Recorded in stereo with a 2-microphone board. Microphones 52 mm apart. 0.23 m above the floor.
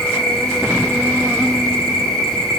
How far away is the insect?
About 0.9 m.